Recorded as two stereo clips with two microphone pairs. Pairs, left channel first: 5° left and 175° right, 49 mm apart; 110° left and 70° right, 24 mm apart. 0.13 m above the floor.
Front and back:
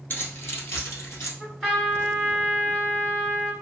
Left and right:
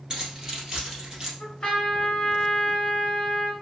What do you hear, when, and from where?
0.1 s keys jangling: 10° right, 1.4 m; by 1.3 s straight ahead, 2.5 m
1.4 s a trumpet: 85° left, 2.0 m